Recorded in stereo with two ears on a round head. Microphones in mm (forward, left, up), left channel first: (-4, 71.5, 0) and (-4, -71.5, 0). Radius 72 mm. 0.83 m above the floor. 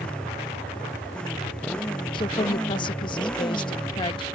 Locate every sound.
0.0 s a motorcycle: 5° left (ahead or behind)
2.1 s a woman speaking: 30° left (ahead or behind)